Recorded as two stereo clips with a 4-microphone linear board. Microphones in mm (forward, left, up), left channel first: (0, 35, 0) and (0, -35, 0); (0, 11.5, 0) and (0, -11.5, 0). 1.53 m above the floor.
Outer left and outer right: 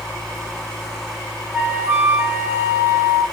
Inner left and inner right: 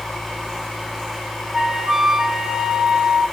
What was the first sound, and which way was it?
A flute, 35° right (ahead or behind).